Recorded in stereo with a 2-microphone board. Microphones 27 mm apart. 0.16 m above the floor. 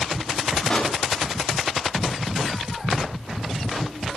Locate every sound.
0.7 s a pop: 35° left (ahead or behind), 8 m